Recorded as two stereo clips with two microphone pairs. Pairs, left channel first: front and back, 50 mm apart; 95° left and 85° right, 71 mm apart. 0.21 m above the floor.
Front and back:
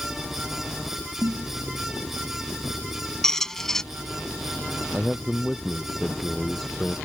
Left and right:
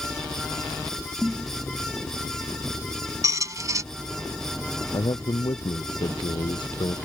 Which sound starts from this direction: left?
A man speaking, at 4.9 s.